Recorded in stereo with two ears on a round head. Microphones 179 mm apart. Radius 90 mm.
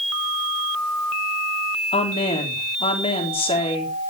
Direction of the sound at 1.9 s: 30° left (ahead or behind).